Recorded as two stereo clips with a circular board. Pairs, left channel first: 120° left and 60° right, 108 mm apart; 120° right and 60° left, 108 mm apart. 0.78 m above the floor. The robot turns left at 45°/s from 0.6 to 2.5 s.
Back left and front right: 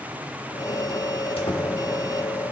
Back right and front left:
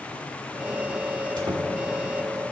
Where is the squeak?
100° left, 1.5 m; by 1.6 s 85° left, 1.5 m.